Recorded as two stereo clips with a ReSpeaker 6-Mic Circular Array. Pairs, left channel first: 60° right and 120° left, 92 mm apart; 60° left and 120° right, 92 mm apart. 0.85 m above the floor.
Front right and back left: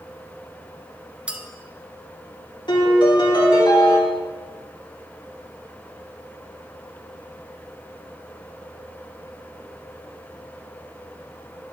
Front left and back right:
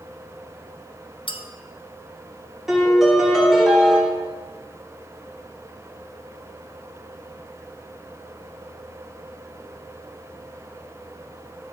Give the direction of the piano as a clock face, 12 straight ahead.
1 o'clock.